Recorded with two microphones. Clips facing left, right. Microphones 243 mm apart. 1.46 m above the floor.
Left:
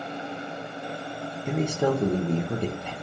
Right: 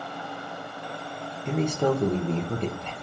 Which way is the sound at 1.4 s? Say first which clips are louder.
Even; 5° left (ahead or behind).